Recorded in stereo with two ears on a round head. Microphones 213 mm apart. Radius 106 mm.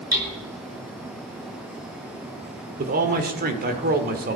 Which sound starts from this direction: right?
A man speaking, at 2.8 s.